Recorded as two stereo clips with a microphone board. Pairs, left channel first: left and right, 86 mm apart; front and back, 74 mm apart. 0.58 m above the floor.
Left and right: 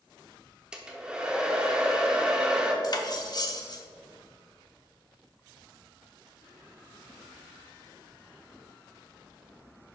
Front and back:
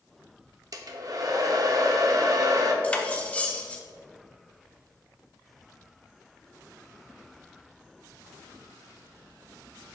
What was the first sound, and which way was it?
A hair dryer, 170° right.